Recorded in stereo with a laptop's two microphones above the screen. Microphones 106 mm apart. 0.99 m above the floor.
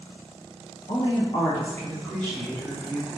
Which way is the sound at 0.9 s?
75° left (ahead or behind).